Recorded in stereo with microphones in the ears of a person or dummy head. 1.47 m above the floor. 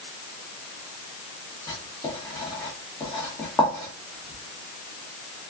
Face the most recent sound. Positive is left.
turn(degrees=20)  # may be behind; listen again after turning